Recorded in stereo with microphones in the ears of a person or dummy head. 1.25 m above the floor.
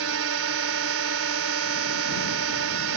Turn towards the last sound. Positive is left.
turn(degrees=-80)